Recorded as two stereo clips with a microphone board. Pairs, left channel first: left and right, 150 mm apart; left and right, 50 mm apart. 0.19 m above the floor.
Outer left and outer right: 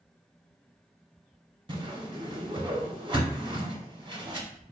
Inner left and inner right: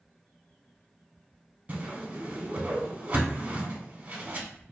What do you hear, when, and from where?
1.7 s a whoosh: 35° right (ahead or behind), 0.7 m